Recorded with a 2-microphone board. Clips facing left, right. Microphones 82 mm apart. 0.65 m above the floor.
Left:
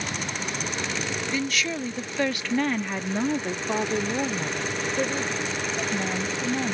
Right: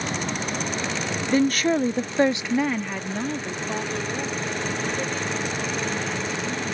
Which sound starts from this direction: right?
A woman speaking, at 1.3 s.